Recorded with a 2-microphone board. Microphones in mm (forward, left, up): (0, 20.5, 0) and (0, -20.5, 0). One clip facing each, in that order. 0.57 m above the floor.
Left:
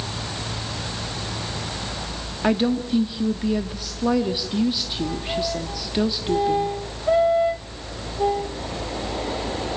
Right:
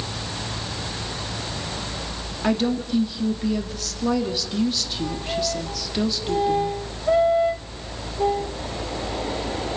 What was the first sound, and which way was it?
A woman speaking, 15° left (ahead or behind).